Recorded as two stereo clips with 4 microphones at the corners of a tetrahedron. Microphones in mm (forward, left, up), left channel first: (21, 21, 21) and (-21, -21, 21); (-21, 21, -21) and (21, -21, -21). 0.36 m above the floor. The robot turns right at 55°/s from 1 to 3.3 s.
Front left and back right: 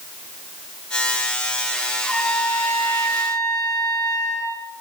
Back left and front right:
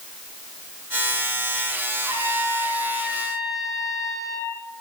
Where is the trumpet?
35° right, 7 m; by 4.5 s 40° left, 7 m.